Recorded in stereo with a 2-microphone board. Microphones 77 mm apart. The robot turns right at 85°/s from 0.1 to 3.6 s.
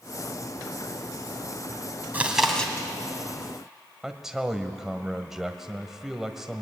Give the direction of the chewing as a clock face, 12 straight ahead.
1 o'clock.